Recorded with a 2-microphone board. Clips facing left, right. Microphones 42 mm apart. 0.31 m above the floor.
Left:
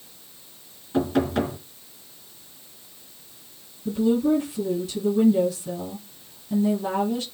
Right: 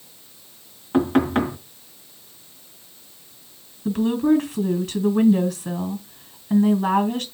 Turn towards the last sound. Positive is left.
turn(degrees=-70)  # may be behind; listen again after turning